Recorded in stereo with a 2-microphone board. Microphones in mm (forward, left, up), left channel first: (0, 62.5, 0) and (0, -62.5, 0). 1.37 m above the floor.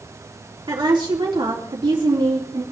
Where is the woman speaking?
40° right (ahead or behind), 3.5 m.